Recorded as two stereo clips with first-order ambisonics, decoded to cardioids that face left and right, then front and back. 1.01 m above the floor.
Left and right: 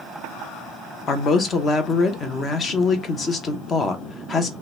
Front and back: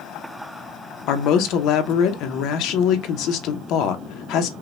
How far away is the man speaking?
About 0.7 m.